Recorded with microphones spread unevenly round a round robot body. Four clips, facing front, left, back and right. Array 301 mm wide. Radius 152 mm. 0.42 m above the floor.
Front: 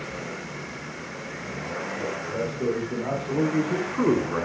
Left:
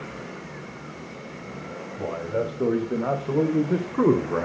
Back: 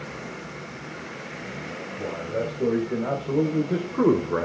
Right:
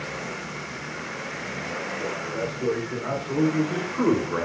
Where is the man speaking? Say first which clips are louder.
Left 5 dB, back 3 dB; 110° left, 2.5 m; by 4.5 s 155° left, 1.4 m.